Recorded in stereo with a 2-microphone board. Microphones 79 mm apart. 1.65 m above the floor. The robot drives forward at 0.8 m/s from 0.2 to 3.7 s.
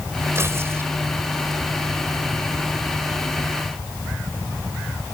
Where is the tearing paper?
35° right (ahead or behind); by 0.9 s 30° right (ahead or behind).